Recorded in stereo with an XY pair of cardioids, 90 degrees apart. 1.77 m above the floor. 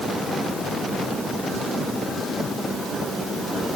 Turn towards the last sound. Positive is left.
No sound to turn to.